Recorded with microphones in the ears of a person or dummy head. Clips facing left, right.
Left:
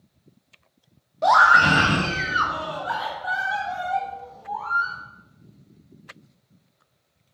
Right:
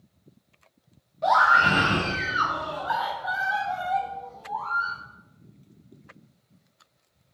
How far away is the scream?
About 1.0 m.